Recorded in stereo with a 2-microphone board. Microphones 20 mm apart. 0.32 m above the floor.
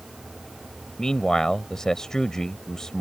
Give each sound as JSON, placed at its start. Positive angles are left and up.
{"t": 1.0, "sound": "a man speaking", "side_deg": 30}